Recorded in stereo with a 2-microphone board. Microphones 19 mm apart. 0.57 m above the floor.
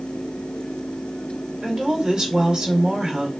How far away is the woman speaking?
About 1.6 m.